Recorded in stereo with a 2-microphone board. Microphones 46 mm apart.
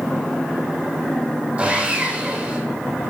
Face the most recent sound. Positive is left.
turn(degrees=-25)  # may be behind; listen again after turning